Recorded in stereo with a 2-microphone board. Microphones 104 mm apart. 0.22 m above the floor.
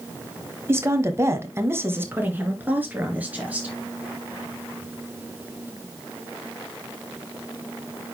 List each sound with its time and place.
0.7 s a woman speaking: 25° right (ahead or behind), 1.1 m; by 3.7 s 15° right (ahead or behind), 4 m